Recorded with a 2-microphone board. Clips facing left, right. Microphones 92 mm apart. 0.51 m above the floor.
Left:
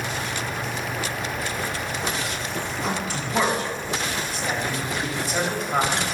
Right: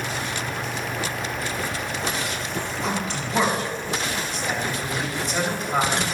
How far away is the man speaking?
About 3.5 m.